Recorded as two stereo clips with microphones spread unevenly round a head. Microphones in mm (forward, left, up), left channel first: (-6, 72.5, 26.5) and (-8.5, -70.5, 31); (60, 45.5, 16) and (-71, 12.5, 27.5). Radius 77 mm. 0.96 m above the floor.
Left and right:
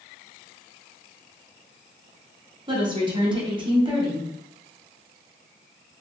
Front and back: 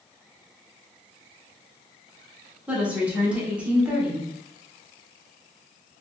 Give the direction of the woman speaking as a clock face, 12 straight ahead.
3 o'clock.